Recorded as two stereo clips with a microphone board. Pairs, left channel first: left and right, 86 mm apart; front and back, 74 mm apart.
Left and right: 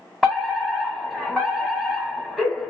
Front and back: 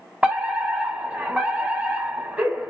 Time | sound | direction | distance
0.2 | a fire alarm | straight behind | 1.9 m